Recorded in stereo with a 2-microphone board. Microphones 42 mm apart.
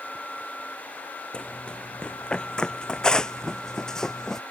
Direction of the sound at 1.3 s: 25° left (ahead or behind).